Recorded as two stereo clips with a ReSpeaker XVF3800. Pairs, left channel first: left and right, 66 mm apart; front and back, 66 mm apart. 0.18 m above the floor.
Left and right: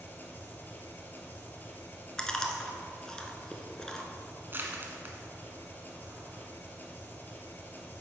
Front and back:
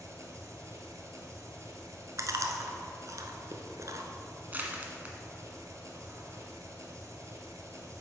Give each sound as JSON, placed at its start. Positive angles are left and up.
{"t": 0.0, "sound": "an engine running", "azimuth_deg": 150, "distance_m": 1.2}
{"t": 2.2, "sound": "chewing", "azimuth_deg": 170, "distance_m": 0.9}
{"t": 4.5, "sound": "crushing", "azimuth_deg": -130, "distance_m": 1.1}